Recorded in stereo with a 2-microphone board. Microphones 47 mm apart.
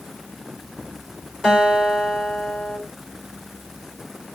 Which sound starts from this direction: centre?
A guitar, at 1.4 s.